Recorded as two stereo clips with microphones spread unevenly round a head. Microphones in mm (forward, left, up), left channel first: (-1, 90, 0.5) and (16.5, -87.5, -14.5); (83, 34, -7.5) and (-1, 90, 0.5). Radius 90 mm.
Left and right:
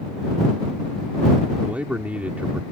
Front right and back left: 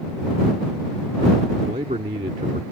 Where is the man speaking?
170° right.